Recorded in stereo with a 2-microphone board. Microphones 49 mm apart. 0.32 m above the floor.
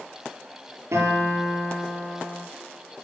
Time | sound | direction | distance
0.9 | a guitar | 60° right (ahead or behind) | 8.5 m